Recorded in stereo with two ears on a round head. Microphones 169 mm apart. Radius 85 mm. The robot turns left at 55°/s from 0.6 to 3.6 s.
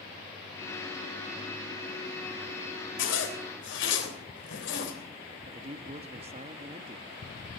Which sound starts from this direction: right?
A man speaking, at 5.5 s.